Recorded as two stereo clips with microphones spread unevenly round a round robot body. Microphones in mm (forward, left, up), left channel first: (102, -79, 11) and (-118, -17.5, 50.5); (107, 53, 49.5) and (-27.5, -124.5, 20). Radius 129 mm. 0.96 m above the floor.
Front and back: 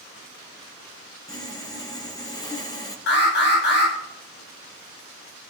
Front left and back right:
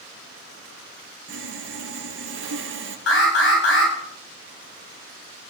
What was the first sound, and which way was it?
Sawing, 90° right.